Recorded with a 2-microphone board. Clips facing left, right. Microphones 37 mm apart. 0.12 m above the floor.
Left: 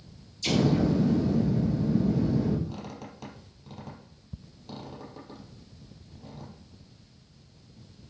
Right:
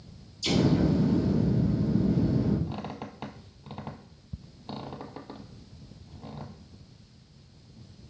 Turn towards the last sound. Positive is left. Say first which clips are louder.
# right 3 dB
turn(degrees=-35)  # may be behind; listen again after turning